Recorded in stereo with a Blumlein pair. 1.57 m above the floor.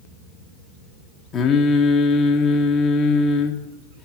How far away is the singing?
About 2 m.